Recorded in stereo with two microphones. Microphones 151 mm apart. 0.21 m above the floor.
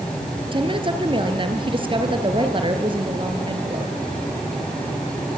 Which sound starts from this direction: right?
A woman speaking, at 0.5 s.